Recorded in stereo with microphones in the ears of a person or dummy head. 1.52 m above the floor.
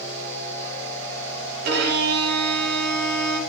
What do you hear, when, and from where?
1.6 s a violin: 60° right (ahead or behind), 3.5 m